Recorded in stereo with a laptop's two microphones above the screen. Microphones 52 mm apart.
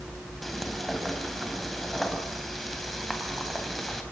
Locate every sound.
0.4 s frying: 5° left (ahead or behind), 4 m